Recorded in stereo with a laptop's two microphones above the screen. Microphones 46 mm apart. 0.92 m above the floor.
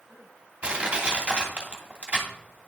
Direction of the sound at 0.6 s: 25° right (ahead or behind).